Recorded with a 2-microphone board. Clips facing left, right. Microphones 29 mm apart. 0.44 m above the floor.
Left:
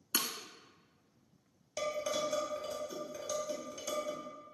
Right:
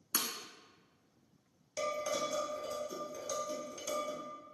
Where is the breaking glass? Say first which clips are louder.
Left 2 dB; 55° left (ahead or behind), 0.5 m.